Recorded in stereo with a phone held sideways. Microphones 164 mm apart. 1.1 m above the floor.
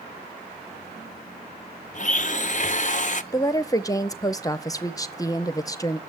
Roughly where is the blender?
Left.